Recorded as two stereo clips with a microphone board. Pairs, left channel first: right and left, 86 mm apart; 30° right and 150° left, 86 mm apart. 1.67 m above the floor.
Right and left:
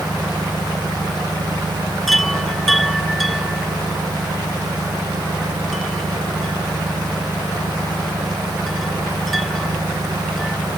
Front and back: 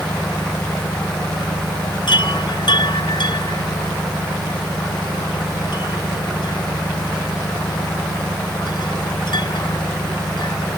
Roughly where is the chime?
Ahead.